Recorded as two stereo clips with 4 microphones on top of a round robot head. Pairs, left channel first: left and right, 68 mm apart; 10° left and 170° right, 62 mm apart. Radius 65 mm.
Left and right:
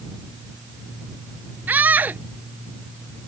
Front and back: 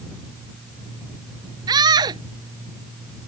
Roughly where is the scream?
Behind.